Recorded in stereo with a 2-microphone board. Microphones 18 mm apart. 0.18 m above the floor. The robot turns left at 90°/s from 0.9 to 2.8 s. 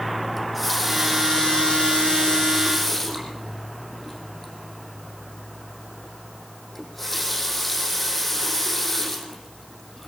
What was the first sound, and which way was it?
A running tap, 175° right.